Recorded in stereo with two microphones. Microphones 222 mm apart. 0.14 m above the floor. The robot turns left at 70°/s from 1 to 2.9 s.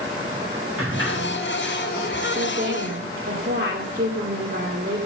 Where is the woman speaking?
80° right, 2 m; by 5.0 s 120° right, 2 m.